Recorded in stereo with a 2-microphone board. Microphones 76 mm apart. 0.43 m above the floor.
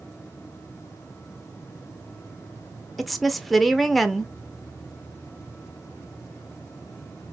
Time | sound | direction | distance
3.0 | a woman speaking | centre (ahead or behind) | 0.9 m